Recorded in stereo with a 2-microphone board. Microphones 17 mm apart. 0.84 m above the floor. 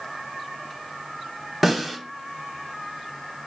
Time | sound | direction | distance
1.6 | a snare drum | 5° right (ahead or behind) | 0.9 m